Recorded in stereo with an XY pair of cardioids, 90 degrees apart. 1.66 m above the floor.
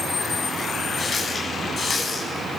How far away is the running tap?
About 8.5 m.